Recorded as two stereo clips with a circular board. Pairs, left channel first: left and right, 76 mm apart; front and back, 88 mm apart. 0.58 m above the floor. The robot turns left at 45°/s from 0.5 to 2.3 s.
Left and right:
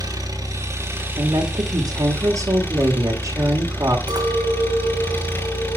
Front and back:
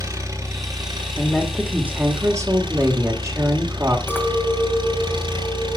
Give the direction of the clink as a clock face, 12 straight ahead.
2 o'clock.